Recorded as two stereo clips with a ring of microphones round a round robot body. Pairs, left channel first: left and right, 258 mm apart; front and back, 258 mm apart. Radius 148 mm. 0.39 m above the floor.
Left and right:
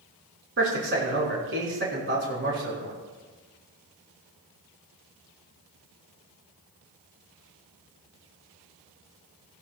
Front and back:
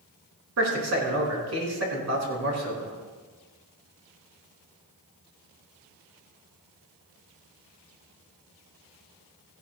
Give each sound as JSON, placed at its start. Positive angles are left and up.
{"t": 0.6, "sound": "a man speaking", "azimuth_deg": -140, "distance_m": 4.5}